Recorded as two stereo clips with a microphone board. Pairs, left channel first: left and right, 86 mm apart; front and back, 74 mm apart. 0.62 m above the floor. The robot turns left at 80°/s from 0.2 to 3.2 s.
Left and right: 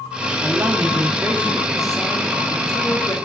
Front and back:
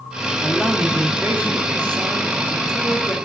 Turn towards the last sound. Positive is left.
turn(degrees=70)